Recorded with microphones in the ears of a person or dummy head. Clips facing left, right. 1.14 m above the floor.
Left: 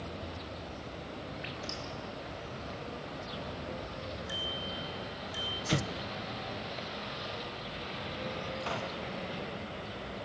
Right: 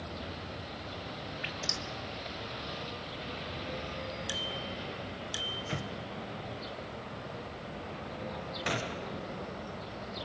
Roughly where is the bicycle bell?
Right.